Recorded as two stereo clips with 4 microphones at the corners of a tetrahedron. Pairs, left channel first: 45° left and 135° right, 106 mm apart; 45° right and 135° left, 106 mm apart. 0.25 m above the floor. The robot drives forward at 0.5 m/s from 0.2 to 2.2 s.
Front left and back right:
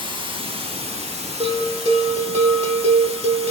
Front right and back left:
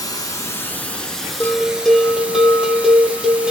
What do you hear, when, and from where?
0.0 s running water: 95° right, 0.7 m; by 3.5 s 150° right, 1.3 m
1.4 s a bell: 115° right, 0.7 m; by 3.5 s 140° right, 0.9 m